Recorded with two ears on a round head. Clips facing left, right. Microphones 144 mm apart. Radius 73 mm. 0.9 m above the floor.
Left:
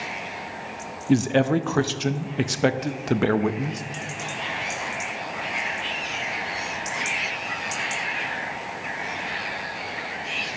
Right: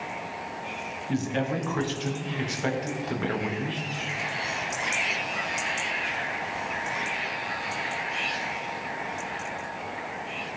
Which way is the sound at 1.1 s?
55° left (ahead or behind).